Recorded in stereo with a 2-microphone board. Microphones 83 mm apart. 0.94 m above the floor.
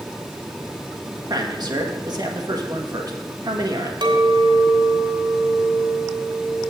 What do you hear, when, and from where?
1.3 s a man speaking: 55° right (ahead or behind), 1.5 m
4.0 s a clink: 80° right, 2.5 m